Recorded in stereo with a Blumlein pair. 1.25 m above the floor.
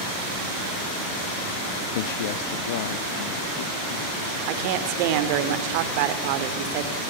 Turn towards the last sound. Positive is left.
turn(degrees=-45)